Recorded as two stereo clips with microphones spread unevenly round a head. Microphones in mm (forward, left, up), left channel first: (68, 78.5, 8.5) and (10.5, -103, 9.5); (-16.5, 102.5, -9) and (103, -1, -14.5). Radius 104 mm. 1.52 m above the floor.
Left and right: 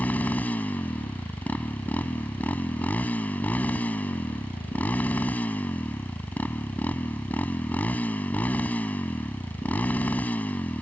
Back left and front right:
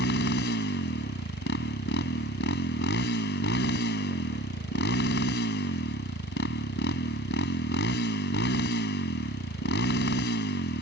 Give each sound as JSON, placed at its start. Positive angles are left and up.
{"t": 0.0, "sound": "a motorcycle", "azimuth_deg": 155}